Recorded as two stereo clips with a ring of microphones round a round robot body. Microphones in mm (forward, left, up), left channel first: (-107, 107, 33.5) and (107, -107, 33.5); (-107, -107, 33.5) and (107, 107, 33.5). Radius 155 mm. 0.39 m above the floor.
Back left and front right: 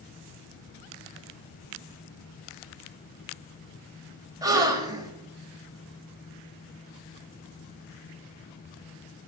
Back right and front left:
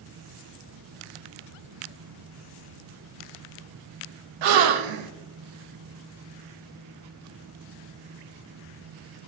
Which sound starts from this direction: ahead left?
A gasp, at 4.4 s.